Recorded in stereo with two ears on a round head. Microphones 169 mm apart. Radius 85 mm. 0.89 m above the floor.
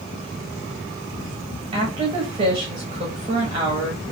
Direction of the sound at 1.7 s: 25° right (ahead or behind).